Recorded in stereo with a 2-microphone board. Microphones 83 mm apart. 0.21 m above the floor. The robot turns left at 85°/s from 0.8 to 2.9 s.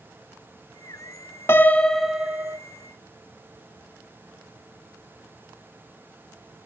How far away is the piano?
About 0.6 m.